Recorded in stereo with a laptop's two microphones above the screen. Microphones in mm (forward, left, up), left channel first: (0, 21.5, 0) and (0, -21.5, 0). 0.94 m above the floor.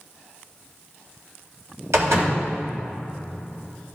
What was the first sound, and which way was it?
A door slam, 90° right.